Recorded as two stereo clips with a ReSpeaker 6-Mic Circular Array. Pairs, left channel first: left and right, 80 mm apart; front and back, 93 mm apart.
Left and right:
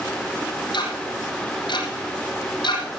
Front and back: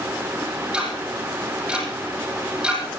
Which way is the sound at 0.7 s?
100° left.